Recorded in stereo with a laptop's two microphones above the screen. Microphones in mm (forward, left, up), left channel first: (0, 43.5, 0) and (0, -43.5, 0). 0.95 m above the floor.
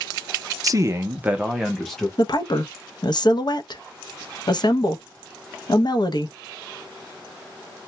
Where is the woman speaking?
55° left (ahead or behind), 0.6 m.